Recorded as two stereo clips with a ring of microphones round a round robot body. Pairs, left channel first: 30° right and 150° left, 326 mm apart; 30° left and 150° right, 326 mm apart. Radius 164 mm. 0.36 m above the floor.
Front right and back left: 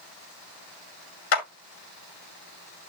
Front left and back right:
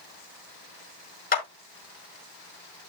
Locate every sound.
1.3 s a clap: 35° right, 4.5 m